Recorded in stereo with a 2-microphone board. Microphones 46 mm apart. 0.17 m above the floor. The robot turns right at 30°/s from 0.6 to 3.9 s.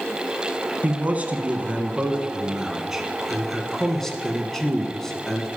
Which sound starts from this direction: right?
A man speaking, at 0.8 s.